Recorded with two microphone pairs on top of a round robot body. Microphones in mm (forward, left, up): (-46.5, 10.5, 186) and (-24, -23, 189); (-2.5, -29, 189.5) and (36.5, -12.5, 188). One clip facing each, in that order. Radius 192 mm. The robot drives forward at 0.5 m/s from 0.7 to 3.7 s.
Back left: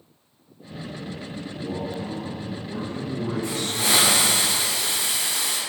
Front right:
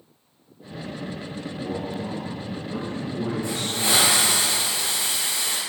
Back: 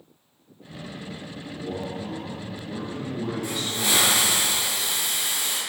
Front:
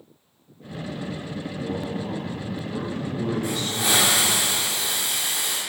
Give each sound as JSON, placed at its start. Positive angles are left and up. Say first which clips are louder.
{"t": 1.4, "sound": "a man speaking", "louder": "even, front 1 dB", "azimuth_deg": -25, "distance_m": 1.7}
{"t": 3.4, "sound": "a hiss", "louder": "even, front 2 dB", "azimuth_deg": 85, "distance_m": 0.6}